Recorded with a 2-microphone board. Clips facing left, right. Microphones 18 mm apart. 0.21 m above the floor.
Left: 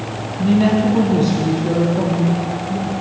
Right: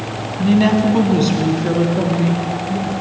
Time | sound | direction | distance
0.4 | a woman speaking | 20° right (ahead or behind) | 1.1 m